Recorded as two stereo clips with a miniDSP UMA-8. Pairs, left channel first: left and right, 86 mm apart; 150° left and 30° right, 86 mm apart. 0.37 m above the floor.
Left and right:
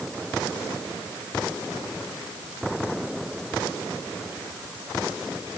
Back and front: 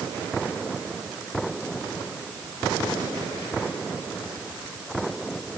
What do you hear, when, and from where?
Only background noise.